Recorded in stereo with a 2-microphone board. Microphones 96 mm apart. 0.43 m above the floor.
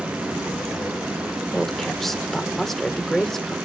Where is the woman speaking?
5° left (ahead or behind), 1.3 m.